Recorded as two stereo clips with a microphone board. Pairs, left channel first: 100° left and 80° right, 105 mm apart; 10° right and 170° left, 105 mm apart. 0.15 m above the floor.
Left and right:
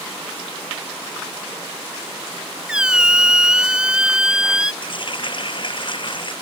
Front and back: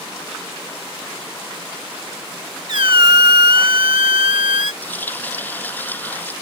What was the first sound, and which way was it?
A squeak, 160° right.